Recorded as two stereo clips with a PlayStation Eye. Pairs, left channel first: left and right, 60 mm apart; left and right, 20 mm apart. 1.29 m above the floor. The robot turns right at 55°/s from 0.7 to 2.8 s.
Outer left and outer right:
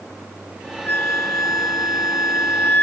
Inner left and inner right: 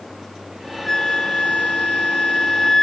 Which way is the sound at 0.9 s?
35° left.